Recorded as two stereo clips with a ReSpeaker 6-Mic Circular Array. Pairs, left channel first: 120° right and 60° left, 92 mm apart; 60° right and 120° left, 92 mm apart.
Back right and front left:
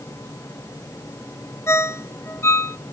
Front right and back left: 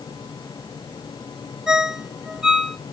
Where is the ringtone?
160° right, 0.6 m.